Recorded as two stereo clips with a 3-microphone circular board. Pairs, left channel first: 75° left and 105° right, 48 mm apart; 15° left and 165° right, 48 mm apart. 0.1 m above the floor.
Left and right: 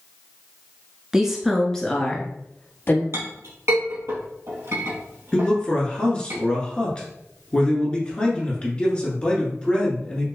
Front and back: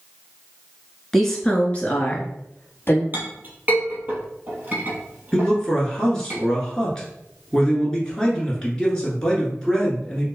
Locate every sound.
1.1 s a woman speaking: 65° right, 1.1 m; by 3.0 s 40° left, 1.8 m
3.1 s a clink: 115° right, 2.0 m
5.3 s a man speaking: 65° left, 1.5 m